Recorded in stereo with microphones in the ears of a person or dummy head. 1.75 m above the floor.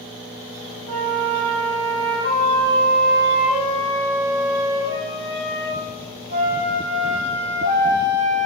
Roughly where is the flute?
Right.